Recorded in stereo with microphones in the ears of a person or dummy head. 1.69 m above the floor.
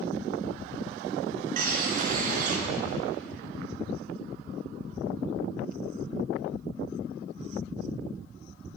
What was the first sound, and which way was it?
A bird, 55° right (ahead or behind).